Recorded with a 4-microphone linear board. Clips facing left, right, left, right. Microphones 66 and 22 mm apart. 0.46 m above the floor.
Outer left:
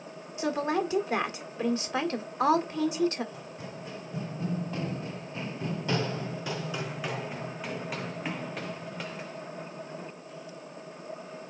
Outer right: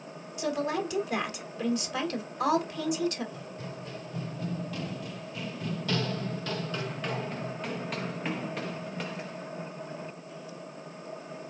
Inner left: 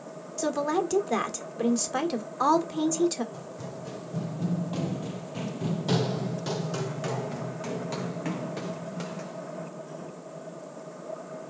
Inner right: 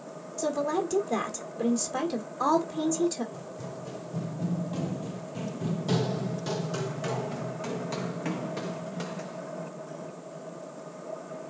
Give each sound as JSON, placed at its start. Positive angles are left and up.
{"t": 0.4, "sound": "a woman speaking", "side_deg": 30, "distance_m": 1.3}
{"t": 3.3, "sound": "running footsteps", "side_deg": 15, "distance_m": 1.1}